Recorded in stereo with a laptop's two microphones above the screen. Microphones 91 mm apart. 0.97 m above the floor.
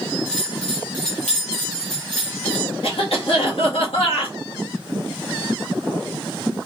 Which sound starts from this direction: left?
A cough, at 2.8 s.